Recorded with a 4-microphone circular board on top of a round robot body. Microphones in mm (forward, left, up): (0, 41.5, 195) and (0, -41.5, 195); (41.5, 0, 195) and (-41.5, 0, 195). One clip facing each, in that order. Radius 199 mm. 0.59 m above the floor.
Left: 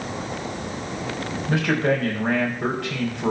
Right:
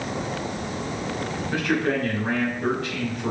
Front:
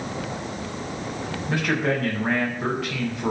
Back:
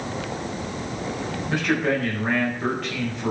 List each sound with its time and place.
1.5 s a man speaking: 85° left, 4.5 m